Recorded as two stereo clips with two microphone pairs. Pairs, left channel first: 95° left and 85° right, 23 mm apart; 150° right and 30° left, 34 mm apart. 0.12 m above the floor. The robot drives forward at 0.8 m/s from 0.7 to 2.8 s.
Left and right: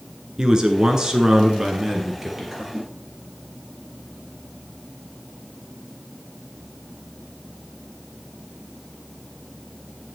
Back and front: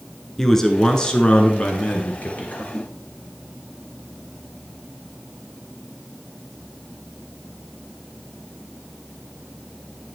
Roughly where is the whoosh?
Behind right.